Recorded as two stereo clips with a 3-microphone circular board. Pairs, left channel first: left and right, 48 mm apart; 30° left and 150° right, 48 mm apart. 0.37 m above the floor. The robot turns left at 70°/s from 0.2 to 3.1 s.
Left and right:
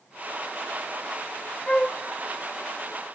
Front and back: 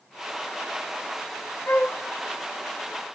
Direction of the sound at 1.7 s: 35° left.